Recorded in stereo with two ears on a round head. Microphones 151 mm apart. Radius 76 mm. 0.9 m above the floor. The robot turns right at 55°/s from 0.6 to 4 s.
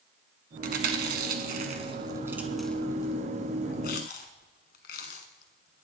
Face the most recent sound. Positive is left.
turn(degrees=60)  # may be behind; listen again after turning